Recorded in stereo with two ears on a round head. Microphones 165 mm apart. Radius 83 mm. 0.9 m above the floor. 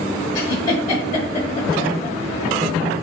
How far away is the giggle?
About 0.9 m.